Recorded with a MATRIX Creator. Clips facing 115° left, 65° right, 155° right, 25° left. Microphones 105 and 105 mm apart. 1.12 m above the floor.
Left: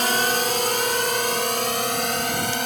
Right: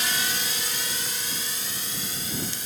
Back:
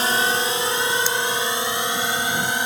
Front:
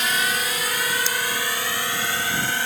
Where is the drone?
145° left; by 2.7 s 130° left.